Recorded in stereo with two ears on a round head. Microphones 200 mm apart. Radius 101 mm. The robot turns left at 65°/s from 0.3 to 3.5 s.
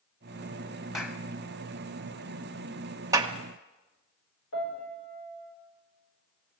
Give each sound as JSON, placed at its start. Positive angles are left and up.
{"t": 0.9, "sound": "a clap", "side_deg": 0, "distance_m": 1.4}
{"t": 3.1, "sound": "a clap", "side_deg": -15, "distance_m": 1.2}
{"t": 4.5, "sound": "a piano", "side_deg": 65, "distance_m": 6.5}